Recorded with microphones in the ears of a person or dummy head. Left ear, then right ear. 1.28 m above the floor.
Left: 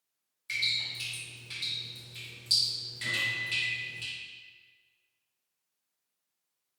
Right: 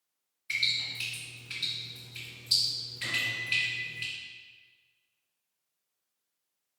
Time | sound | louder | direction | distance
0.5 | dripping | right 1 dB | 20° left (ahead or behind) | 1.4 m
3.0 | a microwave | even | 35° right (ahead or behind) | 0.7 m